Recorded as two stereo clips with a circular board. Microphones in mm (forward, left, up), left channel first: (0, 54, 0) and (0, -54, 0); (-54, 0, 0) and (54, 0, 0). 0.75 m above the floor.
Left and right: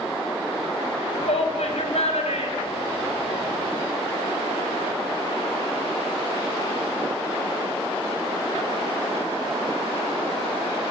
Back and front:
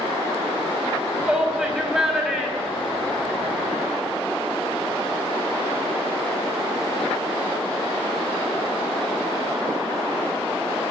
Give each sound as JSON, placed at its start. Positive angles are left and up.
{"t": 1.2, "sound": "a shout", "azimuth_deg": 85, "distance_m": 5.0}